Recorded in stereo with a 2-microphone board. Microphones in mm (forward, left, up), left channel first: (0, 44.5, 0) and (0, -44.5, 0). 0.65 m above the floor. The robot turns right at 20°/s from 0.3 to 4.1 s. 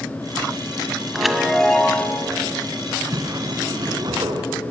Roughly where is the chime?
Centre.